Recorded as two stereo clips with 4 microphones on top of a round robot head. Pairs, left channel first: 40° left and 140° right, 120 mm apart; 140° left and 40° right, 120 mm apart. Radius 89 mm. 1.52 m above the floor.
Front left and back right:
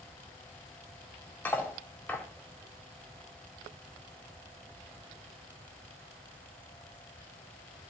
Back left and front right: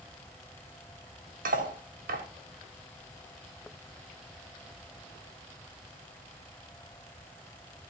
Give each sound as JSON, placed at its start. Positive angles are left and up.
{"t": 1.4, "sound": "cutlery clinking", "azimuth_deg": -35, "distance_m": 2.5}